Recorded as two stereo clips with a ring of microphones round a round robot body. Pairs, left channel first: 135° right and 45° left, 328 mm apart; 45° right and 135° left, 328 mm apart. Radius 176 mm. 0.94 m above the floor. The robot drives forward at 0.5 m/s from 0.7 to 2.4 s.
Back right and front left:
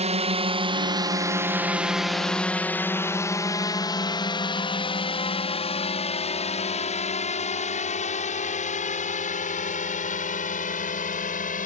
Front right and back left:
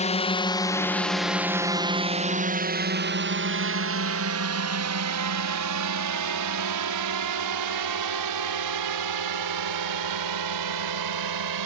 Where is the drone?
Straight ahead; by 11.7 s 160° left.